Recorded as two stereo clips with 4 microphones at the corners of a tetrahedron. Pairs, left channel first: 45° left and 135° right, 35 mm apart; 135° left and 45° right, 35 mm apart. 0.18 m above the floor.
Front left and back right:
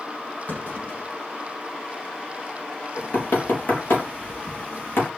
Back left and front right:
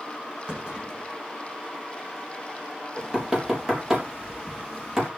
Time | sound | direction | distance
0.5 | a clunk | 20° left | 7.5 m
3.0 | knocking | 25° left | 3.5 m